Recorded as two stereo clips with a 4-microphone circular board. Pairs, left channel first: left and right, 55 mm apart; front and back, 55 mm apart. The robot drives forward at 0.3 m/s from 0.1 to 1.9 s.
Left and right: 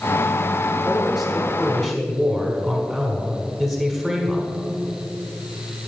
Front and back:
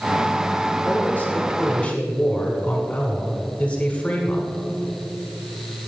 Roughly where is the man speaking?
Ahead.